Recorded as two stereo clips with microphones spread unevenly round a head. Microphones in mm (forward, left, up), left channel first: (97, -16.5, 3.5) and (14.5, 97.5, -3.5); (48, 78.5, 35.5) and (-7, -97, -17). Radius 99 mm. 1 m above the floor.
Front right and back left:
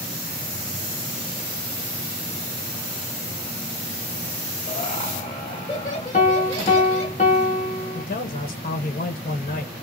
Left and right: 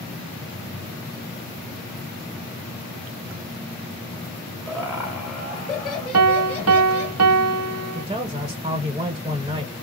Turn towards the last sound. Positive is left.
turn(degrees=-60)